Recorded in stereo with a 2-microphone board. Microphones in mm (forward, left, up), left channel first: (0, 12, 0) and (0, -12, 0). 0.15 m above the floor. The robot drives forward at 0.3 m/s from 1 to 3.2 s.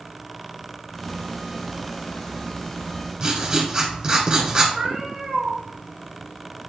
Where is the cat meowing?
25° right (ahead or behind), 1.3 m.